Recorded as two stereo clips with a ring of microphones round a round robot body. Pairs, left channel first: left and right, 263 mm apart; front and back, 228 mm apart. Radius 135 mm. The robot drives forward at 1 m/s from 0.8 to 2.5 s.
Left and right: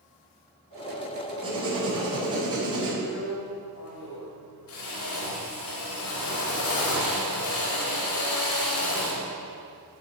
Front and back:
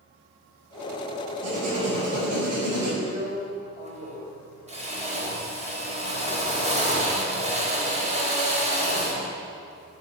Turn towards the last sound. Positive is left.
turn(degrees=120)